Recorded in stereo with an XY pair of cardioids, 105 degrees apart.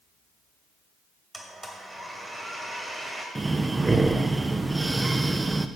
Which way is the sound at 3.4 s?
20° right.